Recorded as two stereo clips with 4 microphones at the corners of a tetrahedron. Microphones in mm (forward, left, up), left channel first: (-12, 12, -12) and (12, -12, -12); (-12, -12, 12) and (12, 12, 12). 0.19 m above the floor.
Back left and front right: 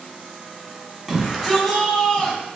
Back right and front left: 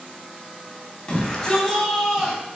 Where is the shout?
110° right, 1.1 m; by 2.4 s 100° left, 1.0 m.